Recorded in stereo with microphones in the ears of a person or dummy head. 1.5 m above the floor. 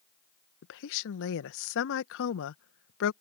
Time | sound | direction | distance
0.6 | a woman speaking | 70° left (ahead or behind) | ?